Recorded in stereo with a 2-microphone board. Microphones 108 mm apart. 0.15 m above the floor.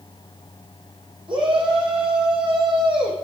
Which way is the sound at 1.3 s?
50° right (ahead or behind).